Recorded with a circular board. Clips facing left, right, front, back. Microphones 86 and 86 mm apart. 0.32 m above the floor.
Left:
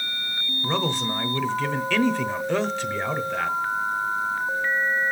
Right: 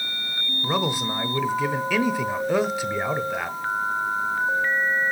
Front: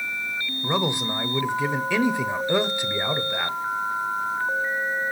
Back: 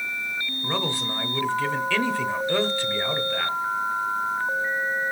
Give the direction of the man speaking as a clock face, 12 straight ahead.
1 o'clock.